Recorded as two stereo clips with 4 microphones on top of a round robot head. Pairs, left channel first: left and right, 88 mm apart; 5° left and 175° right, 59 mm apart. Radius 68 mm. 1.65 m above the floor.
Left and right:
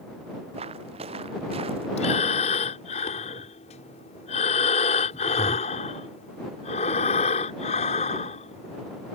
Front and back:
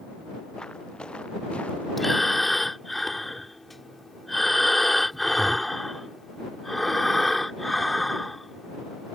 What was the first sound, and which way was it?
Footsteps, 80° right.